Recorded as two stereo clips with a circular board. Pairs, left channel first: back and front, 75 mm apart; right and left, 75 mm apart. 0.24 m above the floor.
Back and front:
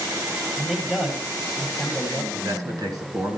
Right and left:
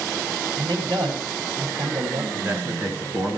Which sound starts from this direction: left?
A man speaking, at 0.6 s.